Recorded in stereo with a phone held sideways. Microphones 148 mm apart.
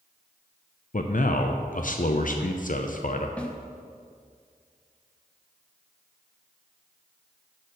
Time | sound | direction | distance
0.9 | a man speaking | 60° left (ahead or behind) | 0.6 m
3.4 | a snare drum | 10° left (ahead or behind) | 0.9 m